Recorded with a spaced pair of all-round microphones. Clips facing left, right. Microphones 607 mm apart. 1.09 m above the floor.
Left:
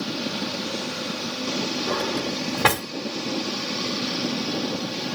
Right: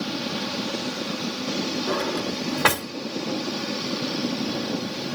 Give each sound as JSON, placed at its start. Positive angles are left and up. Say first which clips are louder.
{"t": 1.9, "sound": "a drawer", "louder": "even", "side_deg": 50, "distance_m": 2.5}